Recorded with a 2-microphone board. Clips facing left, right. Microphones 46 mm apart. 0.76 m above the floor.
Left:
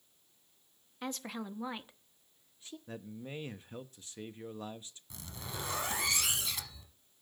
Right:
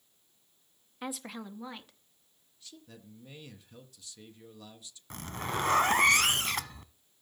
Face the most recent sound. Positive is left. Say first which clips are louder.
# right 10 dB
turn(degrees=-55)  # may be behind; listen again after turning